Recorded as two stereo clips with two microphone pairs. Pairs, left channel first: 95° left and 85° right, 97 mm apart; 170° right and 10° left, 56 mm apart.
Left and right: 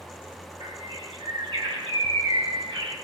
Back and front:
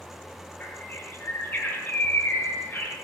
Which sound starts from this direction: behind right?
A bird, at 0.6 s.